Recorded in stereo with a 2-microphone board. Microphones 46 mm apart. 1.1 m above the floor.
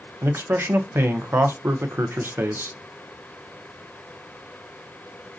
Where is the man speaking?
55° right (ahead or behind), 0.5 m.